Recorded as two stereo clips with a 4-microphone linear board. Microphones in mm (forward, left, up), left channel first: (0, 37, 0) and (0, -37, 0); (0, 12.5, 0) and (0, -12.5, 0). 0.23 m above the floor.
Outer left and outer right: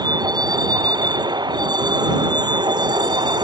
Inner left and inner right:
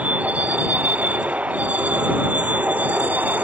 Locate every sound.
0.0 s a vehicle: 65° right (ahead or behind); by 3.4 s 85° right